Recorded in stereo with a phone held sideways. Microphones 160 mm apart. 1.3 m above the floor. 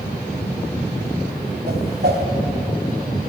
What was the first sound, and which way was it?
A whoosh, 70° right (ahead or behind).